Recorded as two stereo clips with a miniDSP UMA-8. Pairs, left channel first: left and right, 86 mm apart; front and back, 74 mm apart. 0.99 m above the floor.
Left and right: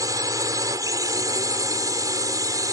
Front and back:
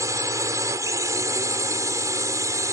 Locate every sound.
0.0 s a drone: 135° right